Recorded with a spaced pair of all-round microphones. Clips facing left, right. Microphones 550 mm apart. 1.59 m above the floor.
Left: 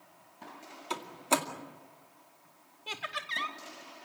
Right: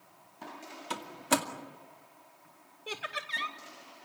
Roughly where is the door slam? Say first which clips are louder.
Right 1 dB; right.